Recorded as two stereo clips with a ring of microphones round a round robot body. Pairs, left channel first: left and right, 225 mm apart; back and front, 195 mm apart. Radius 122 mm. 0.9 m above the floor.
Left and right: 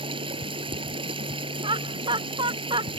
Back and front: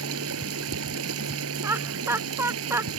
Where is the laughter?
60° right.